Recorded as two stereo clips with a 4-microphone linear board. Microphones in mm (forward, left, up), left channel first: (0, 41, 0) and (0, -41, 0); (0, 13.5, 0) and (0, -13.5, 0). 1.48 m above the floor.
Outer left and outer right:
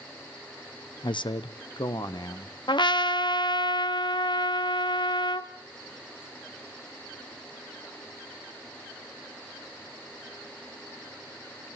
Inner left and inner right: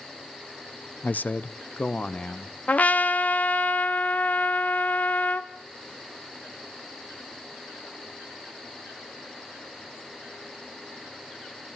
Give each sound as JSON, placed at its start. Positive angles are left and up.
{"t": 1.0, "sound": "a man speaking", "side_deg": 75, "distance_m": 0.8}
{"t": 2.7, "sound": "a trumpet", "side_deg": 70, "distance_m": 1.1}